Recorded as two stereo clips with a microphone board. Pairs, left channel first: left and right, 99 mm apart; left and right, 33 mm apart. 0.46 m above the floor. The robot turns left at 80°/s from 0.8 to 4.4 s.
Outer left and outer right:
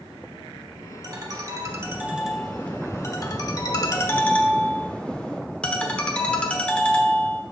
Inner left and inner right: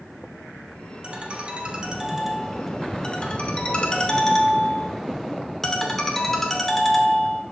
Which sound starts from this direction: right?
A ringtone, at 1.0 s.